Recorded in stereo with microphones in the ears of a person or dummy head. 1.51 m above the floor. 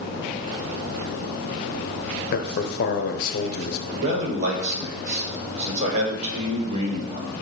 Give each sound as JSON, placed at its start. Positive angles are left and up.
{"t": 2.3, "sound": "a man speaking", "side_deg": 50, "distance_m": 0.7}
{"t": 3.9, "sound": "a man speaking", "side_deg": -40, "distance_m": 1.3}